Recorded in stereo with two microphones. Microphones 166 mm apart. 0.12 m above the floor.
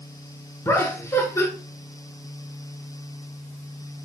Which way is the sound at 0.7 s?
15° left (ahead or behind).